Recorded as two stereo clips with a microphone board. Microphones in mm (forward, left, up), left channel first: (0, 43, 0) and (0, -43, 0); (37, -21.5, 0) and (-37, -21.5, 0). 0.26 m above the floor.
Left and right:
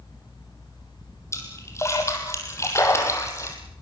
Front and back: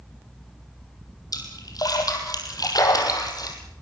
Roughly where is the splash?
Ahead left.